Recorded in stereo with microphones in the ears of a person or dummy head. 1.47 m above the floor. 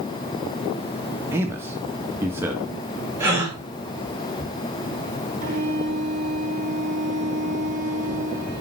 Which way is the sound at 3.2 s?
15° right (ahead or behind).